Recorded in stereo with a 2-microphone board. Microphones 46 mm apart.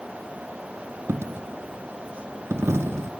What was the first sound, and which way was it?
A dropped coin, 65° right (ahead or behind).